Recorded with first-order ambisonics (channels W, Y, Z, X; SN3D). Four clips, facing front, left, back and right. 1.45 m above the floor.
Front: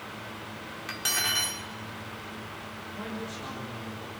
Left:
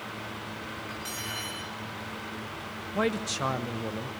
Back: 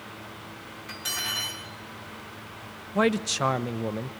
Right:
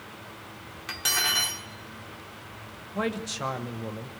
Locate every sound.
0.9 s cutlery clinking: 60° right, 2.5 m
3.0 s a man speaking: 175° left, 0.7 m